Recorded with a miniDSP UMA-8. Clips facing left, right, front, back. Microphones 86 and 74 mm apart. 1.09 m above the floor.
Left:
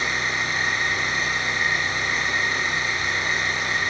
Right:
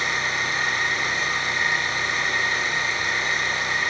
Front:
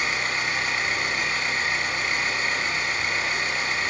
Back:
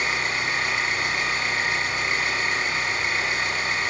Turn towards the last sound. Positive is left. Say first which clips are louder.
# even, back 1 dB
turn(degrees=-115)